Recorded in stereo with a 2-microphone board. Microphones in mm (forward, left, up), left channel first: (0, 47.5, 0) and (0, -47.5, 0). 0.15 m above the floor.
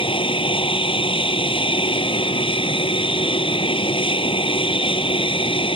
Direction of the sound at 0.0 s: 65° left (ahead or behind).